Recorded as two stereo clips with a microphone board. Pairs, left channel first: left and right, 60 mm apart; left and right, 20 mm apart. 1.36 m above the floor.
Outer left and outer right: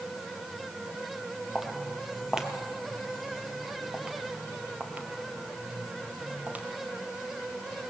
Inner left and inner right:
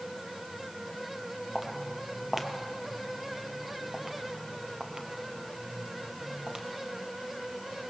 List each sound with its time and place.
1.6 s footsteps: 5° right (ahead or behind), 2 m; by 6.7 s 25° right (ahead or behind), 2 m